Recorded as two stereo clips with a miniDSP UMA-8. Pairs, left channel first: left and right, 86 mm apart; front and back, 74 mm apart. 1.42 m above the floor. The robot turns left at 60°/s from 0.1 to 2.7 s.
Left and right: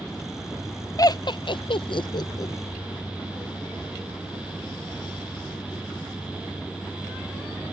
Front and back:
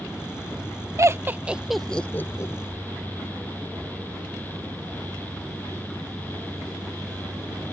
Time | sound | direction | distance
1.0 | laughter | 135° left | ?